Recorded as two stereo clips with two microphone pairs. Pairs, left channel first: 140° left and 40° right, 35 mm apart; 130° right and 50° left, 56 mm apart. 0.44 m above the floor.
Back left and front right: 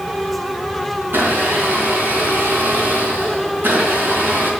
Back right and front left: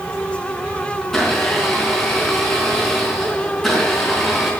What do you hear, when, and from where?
1.0 s a blender: 50° right, 4.5 m